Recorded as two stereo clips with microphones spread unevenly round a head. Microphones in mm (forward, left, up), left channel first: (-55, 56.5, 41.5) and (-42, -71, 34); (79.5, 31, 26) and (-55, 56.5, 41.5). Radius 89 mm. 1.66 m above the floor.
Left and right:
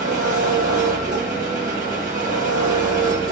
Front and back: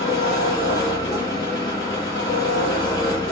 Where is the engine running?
80° right, 1.0 m.